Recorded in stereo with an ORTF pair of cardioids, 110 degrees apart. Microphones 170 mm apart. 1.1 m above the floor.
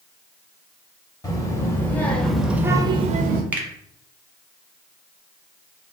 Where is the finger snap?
10° right, 0.9 m.